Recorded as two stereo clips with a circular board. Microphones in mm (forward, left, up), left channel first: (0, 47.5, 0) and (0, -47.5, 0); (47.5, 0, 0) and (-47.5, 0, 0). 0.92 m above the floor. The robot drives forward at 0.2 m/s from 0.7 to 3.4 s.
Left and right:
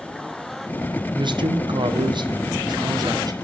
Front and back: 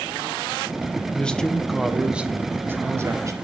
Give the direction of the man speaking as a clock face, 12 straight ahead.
3 o'clock.